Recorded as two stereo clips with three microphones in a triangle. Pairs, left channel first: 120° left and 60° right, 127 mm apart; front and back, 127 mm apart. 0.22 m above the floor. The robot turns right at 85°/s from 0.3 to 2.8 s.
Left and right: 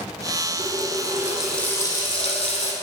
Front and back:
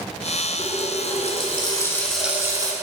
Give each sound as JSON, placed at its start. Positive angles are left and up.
{"t": 0.6, "sound": "a running tap", "azimuth_deg": -45, "distance_m": 1.3}